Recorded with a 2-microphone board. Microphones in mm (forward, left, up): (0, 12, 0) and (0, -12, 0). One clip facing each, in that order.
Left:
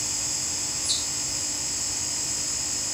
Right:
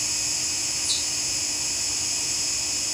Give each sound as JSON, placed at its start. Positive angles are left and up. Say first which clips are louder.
{"t": 0.0, "sound": "an insect", "louder": "right 3 dB", "side_deg": -65, "distance_m": 1.2}